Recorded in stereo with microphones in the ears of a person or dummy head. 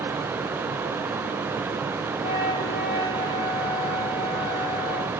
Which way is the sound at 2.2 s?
35° left (ahead or behind).